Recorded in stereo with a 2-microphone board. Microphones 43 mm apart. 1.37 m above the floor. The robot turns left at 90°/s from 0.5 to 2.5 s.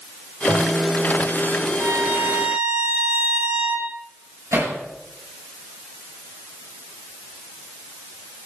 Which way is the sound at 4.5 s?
80° right.